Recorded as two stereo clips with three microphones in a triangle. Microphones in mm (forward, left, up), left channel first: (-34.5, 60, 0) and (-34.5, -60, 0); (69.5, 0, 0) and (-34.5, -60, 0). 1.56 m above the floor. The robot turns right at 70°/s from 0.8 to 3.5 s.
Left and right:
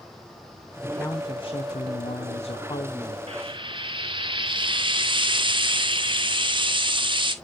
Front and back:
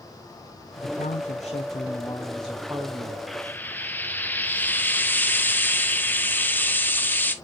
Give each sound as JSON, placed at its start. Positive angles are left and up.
{"t": 0.8, "sound": "a man speaking", "azimuth_deg": 0, "distance_m": 0.7}
{"t": 3.3, "sound": "frying", "azimuth_deg": -60, "distance_m": 0.8}